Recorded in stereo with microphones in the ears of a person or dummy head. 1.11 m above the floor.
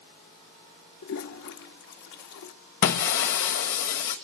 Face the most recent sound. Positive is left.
turn(degrees=50)  # may be behind; listen again after turning